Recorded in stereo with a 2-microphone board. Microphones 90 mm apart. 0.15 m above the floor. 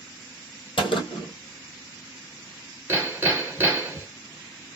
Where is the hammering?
25° right (ahead or behind), 1.3 m.